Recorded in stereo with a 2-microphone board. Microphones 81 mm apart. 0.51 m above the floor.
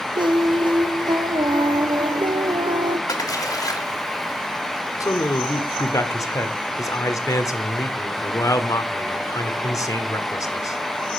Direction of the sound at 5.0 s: 40° left (ahead or behind).